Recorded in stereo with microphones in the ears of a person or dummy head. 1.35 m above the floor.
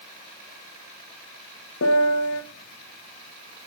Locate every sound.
1.8 s a piano: 70° left (ahead or behind), 1.4 m